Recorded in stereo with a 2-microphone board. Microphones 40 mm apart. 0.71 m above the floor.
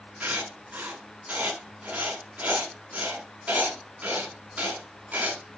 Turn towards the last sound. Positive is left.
turn(degrees=-40)  # may be behind; listen again after turning